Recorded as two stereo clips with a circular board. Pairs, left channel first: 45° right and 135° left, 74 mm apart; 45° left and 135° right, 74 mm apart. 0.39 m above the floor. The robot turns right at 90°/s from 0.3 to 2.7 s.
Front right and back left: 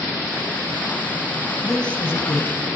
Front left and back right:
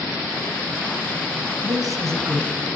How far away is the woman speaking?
About 2.5 m.